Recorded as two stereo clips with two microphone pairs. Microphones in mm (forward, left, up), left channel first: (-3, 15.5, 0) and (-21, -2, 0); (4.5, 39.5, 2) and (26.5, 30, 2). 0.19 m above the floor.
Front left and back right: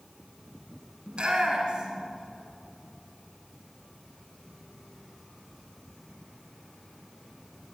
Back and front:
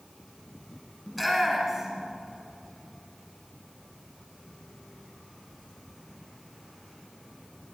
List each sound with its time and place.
1.1 s a shout: 115° right, 1.8 m; by 2.1 s 80° right, 2.5 m